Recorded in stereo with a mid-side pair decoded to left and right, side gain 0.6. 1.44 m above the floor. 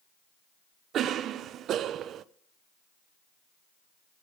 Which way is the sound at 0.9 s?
55° right.